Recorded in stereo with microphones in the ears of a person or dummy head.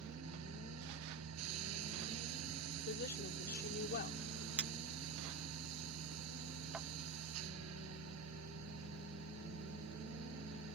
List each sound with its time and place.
0.0 s a machine running: 85° right
2.8 s a woman speaking: 55° left (ahead or behind)
4.6 s a clink: 5° right (ahead or behind)